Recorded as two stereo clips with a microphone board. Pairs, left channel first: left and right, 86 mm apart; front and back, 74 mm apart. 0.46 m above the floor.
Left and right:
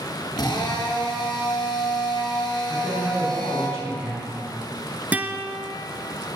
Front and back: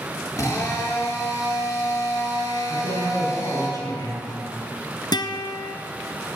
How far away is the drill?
About 6 m.